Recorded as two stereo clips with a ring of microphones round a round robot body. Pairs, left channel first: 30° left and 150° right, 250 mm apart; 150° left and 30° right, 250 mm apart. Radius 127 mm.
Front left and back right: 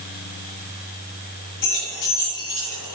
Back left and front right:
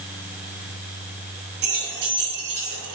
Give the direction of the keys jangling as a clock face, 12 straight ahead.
11 o'clock.